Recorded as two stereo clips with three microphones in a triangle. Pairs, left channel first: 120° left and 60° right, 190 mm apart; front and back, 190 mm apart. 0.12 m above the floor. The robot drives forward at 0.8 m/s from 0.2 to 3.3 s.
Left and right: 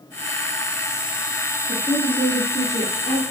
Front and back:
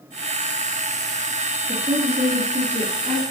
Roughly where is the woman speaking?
Behind right.